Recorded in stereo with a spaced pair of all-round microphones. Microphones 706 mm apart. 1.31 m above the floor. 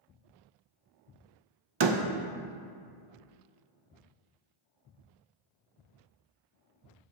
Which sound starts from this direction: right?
A door slam, at 1.8 s.